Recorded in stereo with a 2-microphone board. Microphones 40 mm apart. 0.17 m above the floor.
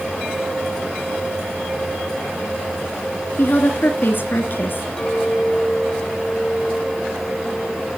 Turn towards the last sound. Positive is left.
turn(degrees=15)  # may be behind; listen again after turning